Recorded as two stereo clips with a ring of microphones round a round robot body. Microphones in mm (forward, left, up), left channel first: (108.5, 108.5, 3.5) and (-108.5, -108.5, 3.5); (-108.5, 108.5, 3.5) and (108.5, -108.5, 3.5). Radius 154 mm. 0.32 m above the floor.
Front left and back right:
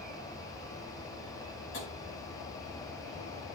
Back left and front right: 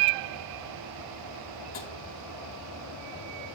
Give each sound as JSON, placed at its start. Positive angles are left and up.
{"t": 1.7, "sound": "tapping", "azimuth_deg": 95, "distance_m": 2.5}